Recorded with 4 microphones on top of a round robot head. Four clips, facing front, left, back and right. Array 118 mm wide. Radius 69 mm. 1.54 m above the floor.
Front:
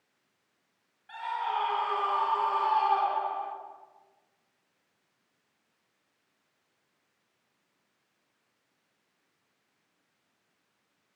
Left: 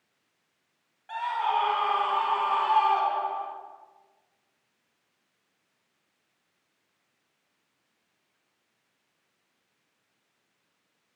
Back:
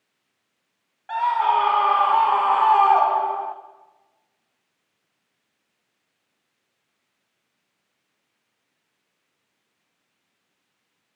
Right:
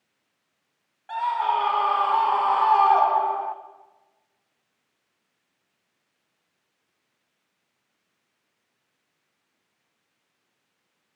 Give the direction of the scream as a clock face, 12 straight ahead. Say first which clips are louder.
Right 4 dB, back 13 dB; 6 o'clock.